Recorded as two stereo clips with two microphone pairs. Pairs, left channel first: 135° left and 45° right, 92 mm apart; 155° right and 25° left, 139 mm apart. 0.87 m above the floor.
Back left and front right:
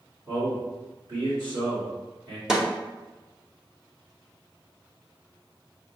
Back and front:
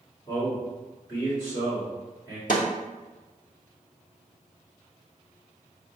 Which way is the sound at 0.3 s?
95° right.